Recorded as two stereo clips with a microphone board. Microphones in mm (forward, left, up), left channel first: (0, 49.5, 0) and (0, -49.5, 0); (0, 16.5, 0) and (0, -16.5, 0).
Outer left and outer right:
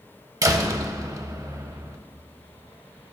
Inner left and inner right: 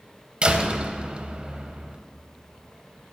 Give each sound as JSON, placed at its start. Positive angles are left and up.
{"t": 0.4, "sound": "a door slam", "side_deg": -35, "distance_m": 1.0}